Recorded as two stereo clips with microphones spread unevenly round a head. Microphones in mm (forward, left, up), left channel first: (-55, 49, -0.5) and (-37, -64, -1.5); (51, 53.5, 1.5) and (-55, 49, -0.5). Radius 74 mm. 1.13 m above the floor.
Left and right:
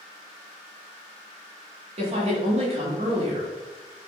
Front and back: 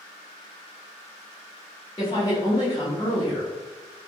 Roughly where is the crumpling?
No crumpling in this recording.